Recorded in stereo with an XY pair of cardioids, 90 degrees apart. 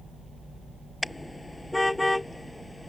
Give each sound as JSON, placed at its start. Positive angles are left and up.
{"t": 1.0, "sound": "a car horn", "azimuth_deg": 20}